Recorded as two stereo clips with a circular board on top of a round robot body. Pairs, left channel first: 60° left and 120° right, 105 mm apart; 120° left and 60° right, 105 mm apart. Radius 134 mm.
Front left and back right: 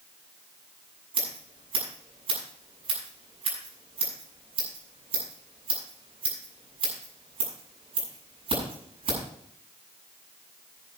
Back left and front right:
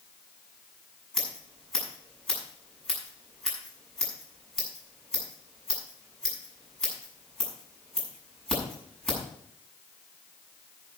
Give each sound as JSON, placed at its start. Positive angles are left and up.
{"t": 1.1, "sound": "scissors", "azimuth_deg": -155, "distance_m": 7.0}